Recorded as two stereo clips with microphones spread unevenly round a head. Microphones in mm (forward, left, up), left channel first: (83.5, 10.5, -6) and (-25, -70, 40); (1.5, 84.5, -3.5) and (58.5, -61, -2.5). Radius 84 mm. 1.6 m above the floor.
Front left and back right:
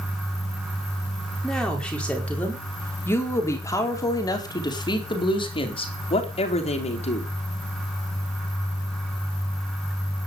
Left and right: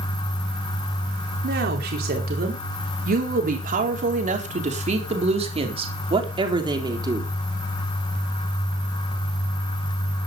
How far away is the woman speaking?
About 4.5 m.